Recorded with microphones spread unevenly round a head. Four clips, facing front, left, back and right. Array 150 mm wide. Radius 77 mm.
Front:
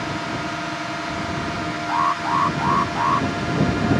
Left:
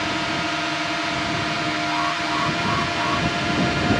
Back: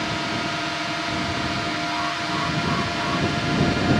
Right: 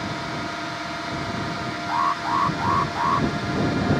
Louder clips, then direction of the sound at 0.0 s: Left 4 dB, even; 100° left.